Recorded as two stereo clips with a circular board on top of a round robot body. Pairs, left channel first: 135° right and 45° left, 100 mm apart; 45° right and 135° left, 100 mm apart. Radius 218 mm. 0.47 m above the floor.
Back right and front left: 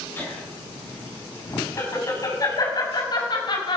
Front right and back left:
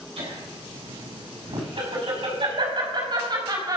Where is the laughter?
155° left, 8 m; by 3.8 s 175° right, 4.5 m.